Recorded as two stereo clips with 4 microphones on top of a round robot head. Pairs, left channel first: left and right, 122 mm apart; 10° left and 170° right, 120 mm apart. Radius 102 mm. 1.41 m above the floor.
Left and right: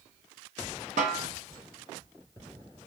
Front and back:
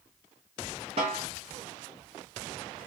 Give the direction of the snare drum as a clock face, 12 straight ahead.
4 o'clock.